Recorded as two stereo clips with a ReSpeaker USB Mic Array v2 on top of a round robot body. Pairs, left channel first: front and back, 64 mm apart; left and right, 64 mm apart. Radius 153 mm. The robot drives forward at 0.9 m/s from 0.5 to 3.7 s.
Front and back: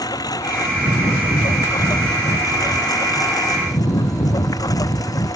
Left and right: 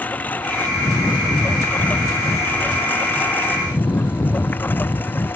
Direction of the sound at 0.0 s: 25° left.